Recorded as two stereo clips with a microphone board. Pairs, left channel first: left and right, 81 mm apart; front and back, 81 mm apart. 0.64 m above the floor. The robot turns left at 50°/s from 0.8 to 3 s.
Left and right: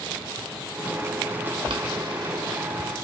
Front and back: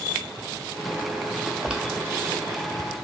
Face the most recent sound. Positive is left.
turn(degrees=-165)